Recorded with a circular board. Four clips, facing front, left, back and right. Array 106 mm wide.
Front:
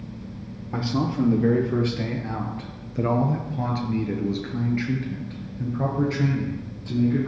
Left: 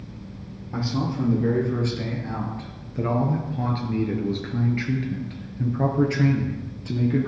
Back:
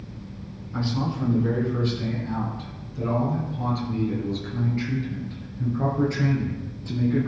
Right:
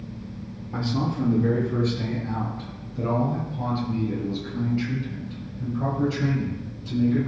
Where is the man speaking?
5° left, 3.5 m; by 7.3 s 90° left, 3.5 m.